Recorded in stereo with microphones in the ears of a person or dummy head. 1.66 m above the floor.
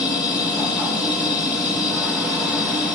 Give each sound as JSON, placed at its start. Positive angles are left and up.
{"t": 0.0, "sound": "a machine running", "side_deg": 0, "distance_m": 1.3}